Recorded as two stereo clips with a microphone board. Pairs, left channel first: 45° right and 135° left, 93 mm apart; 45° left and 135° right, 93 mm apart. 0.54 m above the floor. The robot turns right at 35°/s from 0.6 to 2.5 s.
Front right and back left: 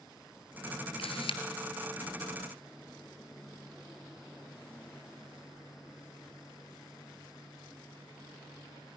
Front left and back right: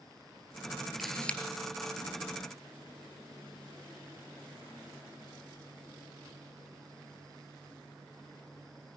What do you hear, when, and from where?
1.0 s a camera shutter: 45° right, 1.9 m; by 1.4 s 30° right, 1.9 m